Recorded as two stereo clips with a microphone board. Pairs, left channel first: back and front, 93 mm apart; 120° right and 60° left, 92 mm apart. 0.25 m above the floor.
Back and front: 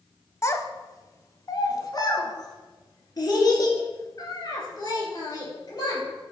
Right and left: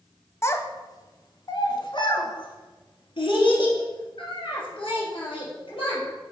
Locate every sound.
0.4 s a child speaking: 155° right, 0.7 m; by 6.0 s 135° right, 3.5 m